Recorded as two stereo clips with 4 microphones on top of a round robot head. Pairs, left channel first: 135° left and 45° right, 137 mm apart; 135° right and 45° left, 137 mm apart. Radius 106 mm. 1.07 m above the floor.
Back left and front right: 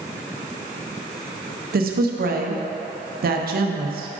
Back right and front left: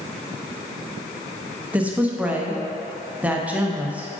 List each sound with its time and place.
1.7 s a woman speaking: 35° right, 0.9 m